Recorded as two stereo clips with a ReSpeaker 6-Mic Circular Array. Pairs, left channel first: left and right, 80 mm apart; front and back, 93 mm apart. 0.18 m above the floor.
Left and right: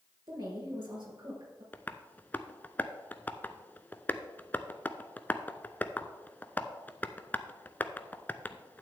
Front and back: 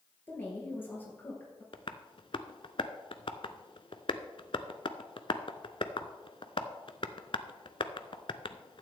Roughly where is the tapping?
Ahead.